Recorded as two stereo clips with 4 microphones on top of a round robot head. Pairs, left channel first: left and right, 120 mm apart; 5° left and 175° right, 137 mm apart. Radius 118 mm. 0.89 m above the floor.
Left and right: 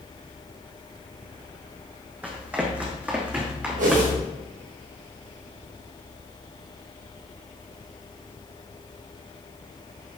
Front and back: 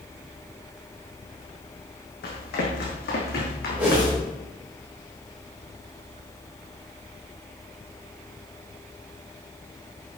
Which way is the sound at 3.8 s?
95° right.